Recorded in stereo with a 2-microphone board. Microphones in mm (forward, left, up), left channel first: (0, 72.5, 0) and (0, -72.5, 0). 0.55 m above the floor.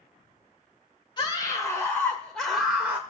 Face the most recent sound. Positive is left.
turn(degrees=-10)  # may be behind; listen again after turning